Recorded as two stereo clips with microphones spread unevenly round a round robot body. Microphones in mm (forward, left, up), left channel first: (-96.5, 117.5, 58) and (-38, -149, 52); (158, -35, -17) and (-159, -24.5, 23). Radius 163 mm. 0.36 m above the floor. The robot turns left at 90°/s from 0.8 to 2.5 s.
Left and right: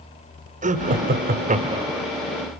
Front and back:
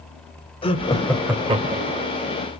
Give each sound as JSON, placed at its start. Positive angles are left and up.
{"t": 0.6, "sound": "laughter", "azimuth_deg": -45, "distance_m": 1.4}